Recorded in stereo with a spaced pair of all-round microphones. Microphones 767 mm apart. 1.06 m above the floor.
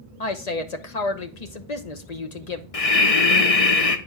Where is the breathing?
50° left (ahead or behind), 0.9 m.